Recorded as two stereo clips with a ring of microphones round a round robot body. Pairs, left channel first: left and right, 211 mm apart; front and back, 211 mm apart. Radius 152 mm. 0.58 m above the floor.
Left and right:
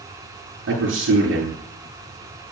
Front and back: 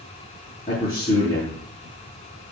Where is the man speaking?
70° right, 7.5 m.